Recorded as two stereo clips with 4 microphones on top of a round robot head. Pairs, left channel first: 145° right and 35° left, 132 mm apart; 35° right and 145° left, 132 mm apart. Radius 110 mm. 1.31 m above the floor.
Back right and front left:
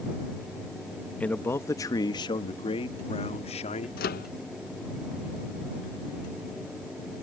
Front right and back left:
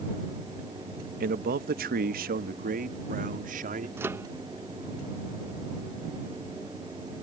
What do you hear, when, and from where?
1.2 s a man speaking: 135° left; by 3.9 s 170° left
4.0 s a microwave: 140° right